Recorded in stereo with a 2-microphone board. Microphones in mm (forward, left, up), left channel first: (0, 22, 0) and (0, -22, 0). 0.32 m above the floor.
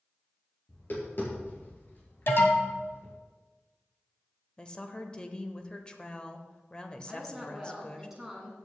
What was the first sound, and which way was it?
Tapping, 50° left (ahead or behind).